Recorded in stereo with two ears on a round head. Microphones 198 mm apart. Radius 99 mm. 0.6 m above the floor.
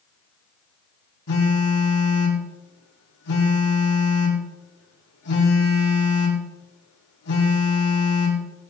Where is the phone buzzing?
85° left, 6 m.